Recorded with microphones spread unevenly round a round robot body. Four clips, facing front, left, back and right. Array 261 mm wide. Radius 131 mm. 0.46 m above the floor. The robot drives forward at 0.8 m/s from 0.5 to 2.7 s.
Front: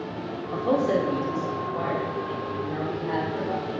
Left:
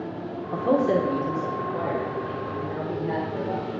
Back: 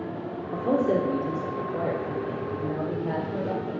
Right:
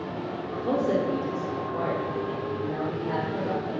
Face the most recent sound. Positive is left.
turn(degrees=175)